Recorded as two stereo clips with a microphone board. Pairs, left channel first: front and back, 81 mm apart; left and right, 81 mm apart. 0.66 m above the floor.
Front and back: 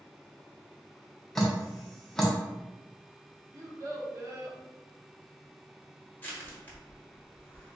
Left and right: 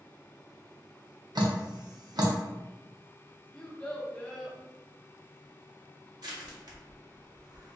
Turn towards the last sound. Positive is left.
turn(degrees=-65)